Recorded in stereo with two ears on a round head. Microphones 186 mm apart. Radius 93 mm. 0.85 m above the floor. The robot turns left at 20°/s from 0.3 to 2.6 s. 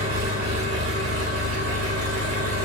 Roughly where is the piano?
I don't hear a piano.